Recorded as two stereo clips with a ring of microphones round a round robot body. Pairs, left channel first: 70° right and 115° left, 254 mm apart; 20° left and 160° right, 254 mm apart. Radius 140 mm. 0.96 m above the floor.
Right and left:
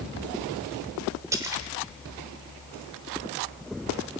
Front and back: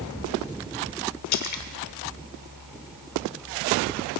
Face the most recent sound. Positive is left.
turn(degrees=35)